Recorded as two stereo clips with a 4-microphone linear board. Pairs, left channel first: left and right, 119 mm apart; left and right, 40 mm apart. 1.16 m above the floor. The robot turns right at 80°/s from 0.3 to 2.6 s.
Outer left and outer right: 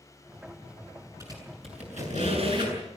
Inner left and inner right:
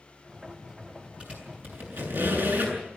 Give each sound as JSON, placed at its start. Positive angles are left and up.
{"t": 1.2, "sound": "a squeak", "side_deg": -30, "distance_m": 8.0}